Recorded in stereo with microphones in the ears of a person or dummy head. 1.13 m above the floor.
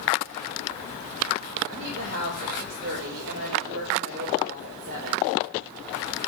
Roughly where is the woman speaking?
Right.